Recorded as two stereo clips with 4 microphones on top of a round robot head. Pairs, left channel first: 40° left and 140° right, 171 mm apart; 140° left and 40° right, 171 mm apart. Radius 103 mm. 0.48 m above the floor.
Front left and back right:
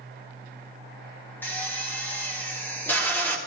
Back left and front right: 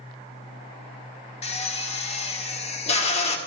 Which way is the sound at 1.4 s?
115° left.